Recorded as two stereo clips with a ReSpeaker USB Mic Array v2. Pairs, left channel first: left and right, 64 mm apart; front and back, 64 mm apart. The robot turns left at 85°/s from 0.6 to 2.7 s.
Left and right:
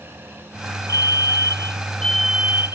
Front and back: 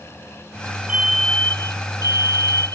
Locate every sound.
0.9 s a fire alarm: 110° left; by 2.8 s 45° right